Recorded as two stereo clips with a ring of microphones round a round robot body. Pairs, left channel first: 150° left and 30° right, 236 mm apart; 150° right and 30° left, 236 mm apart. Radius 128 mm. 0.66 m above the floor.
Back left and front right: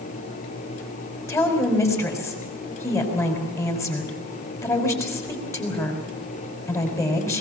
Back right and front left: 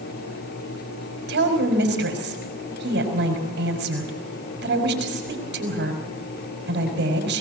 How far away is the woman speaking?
About 5 m.